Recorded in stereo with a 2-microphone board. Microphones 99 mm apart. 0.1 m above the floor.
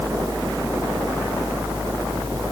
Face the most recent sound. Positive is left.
No sound to turn to.